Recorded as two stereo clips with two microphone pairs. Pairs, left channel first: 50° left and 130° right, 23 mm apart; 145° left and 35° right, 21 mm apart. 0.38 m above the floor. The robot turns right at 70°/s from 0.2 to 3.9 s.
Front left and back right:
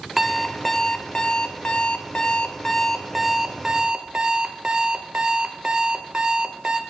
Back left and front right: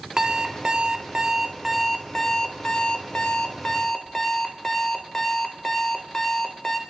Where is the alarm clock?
55° right, 0.7 m; by 6.8 s 160° right, 0.7 m.